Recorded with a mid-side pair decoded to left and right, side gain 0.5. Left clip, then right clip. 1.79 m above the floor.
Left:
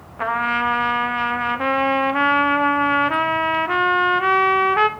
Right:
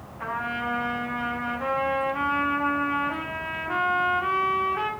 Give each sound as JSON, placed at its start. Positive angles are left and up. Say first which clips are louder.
{"t": 0.2, "sound": "a trumpet", "louder": "left 9 dB", "azimuth_deg": 65, "distance_m": 1.0}